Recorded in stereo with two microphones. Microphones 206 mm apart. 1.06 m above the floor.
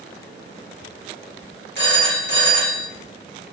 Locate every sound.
1.8 s a phone ringing: 60° right (ahead or behind), 1.3 m